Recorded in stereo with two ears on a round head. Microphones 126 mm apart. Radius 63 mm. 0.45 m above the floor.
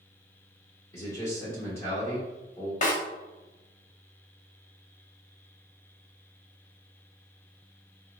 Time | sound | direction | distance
0.9 | a man speaking | 20° left (ahead or behind) | 1.2 m
2.8 | a snare drum | 50° left (ahead or behind) | 0.9 m